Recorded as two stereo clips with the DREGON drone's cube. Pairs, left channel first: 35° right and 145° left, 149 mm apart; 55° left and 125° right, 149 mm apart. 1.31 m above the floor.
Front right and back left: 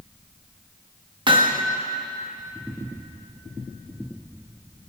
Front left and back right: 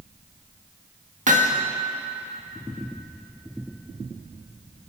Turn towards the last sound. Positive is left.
turn(degrees=-155)